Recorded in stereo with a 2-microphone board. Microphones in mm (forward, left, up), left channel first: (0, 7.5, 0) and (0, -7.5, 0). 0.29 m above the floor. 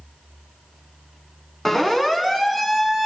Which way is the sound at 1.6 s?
5° left (ahead or behind).